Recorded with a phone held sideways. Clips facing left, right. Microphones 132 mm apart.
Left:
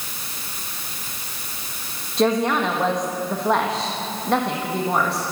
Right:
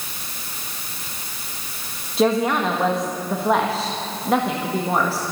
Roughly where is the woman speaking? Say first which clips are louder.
Right 1 dB; centre.